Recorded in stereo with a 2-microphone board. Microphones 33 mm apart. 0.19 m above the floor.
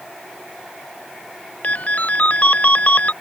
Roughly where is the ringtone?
Left.